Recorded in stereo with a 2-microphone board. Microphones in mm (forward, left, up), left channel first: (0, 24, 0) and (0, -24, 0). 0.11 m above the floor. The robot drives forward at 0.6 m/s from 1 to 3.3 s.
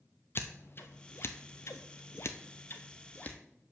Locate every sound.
0.3 s scissors: 50° left (ahead or behind), 0.9 m; by 3.4 s 35° left (ahead or behind), 1.1 m